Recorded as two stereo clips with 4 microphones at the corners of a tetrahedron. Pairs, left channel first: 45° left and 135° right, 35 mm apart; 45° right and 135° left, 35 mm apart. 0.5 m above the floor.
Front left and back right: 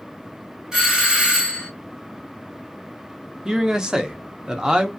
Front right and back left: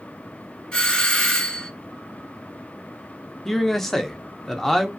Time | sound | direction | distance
0.7 | a doorbell | 80° right | 1.6 m
3.5 | a man speaking | 105° right | 0.7 m